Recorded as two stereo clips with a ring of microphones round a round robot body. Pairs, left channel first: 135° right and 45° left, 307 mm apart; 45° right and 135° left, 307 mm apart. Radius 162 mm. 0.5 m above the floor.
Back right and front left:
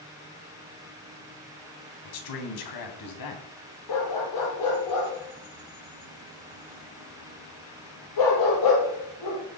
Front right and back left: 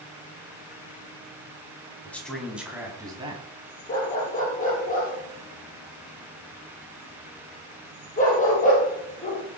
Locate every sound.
2.0 s a man speaking: 130° right, 3.5 m; by 3.5 s 150° right, 4 m
3.9 s a dog barking: 110° right, 5 m